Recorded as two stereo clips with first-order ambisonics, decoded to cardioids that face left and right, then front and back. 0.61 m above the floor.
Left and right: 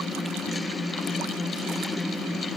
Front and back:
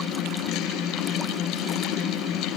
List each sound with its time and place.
Only background noise.